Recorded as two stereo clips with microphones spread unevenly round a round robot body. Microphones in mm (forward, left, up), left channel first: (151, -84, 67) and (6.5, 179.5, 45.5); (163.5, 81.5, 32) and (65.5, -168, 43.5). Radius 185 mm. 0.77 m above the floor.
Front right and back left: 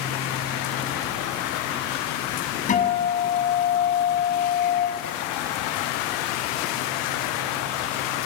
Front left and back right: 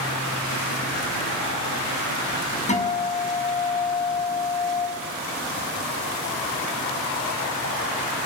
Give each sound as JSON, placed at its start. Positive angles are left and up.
{"t": 2.7, "sound": "a guitar", "azimuth_deg": 5, "distance_m": 6.5}